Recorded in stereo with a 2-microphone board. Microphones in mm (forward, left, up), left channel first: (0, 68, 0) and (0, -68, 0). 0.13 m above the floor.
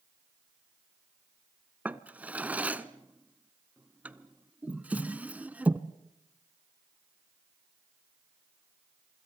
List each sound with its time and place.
1.9 s a drawer: 10° right (ahead or behind), 0.7 m